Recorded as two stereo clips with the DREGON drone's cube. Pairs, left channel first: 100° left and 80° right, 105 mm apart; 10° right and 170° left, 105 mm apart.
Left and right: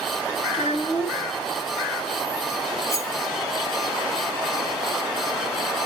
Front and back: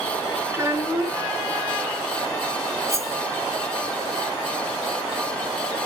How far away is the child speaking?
About 2.5 m.